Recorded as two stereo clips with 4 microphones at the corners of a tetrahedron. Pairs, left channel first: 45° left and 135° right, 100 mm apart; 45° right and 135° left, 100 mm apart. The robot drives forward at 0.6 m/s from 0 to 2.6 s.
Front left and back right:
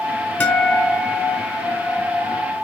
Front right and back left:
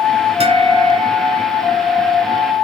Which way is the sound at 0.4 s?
115° left.